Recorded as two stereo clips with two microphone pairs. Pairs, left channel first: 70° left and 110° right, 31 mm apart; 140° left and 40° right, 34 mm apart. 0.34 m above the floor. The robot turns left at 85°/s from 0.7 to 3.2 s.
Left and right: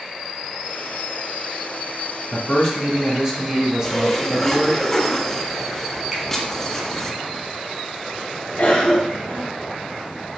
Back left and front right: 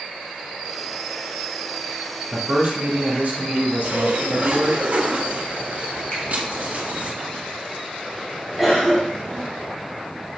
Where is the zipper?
5° right, 2 m.